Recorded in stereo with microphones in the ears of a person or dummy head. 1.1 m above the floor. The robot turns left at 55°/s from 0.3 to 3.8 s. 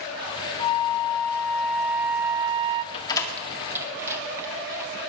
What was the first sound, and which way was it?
A flute, 55° left.